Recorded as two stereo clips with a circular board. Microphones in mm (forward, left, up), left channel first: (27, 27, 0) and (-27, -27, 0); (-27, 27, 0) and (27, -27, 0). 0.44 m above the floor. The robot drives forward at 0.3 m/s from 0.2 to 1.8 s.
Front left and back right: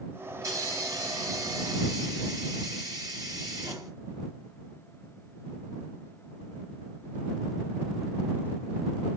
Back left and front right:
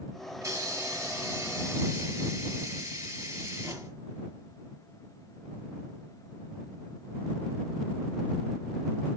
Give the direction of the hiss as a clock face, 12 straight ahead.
3 o'clock.